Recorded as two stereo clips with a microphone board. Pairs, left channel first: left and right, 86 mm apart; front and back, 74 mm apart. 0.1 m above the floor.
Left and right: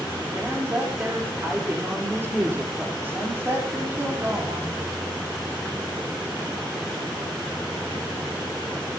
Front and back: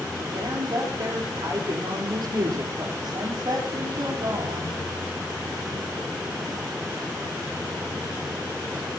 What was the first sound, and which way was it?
A woman speaking, 155° right.